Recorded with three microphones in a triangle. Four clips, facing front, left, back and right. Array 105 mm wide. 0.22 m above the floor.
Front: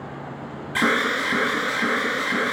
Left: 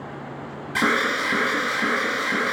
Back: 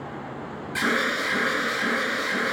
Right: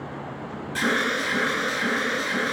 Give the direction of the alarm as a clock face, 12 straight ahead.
10 o'clock.